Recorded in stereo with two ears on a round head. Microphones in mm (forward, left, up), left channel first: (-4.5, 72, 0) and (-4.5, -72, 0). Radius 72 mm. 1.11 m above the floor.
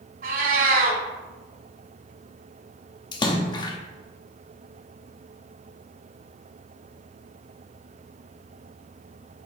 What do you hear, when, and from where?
0.2 s a cat meowing: 55° right (ahead or behind), 1.6 m
3.1 s a splash: 25° left (ahead or behind), 0.8 m